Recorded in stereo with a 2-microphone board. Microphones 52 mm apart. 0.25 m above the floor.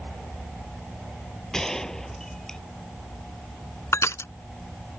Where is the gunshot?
10° left (ahead or behind).